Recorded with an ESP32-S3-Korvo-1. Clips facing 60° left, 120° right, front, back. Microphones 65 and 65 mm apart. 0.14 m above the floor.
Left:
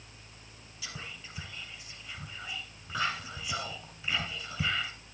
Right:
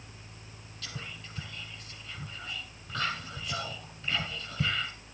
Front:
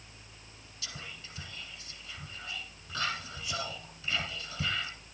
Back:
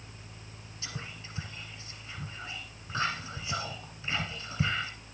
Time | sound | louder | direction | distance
0.8 | whispering | right 1 dB, back 3 dB | 135° left | 1.7 m